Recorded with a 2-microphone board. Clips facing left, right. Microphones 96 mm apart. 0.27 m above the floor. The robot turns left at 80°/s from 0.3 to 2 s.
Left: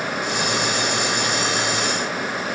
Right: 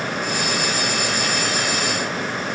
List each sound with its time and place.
Only background noise.